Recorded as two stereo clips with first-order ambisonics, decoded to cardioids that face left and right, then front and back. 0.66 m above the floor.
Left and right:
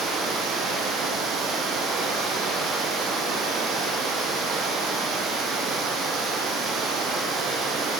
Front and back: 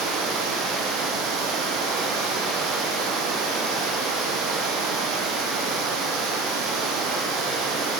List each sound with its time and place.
0.0 s running water: 145° right, 4 m